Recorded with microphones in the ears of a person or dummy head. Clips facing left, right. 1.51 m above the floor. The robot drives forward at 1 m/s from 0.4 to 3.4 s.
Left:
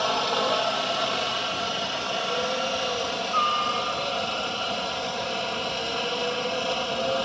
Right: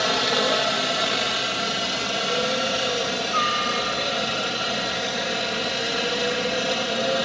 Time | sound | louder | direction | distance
0.0 | a helicopter | right 2 dB | 25° right (ahead or behind) | ?